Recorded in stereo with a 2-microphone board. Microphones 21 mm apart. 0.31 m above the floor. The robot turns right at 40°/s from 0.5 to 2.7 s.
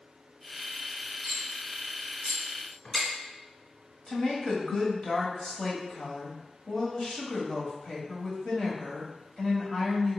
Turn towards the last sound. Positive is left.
turn(degrees=45)  # may be behind; listen again after turning